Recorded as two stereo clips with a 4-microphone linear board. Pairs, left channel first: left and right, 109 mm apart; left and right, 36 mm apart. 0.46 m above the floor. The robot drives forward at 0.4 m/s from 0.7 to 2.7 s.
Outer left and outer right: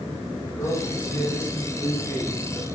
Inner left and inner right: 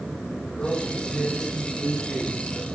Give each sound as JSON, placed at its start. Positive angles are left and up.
{"t": 0.5, "sound": "a man speaking", "side_deg": 20, "distance_m": 6.0}